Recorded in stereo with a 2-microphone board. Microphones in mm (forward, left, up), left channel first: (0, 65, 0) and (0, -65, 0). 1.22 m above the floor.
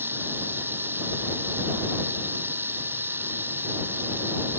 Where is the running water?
15° right (ahead or behind).